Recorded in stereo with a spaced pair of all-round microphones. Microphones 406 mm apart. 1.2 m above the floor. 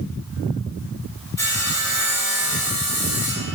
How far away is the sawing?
About 1.4 m.